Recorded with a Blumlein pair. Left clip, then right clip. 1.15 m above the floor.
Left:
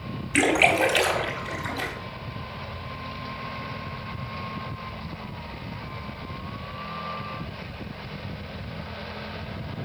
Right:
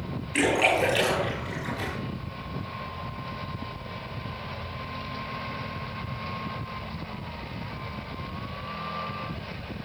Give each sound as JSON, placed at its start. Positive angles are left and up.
{"t": 0.3, "sound": "a splash", "azimuth_deg": 30, "distance_m": 3.5}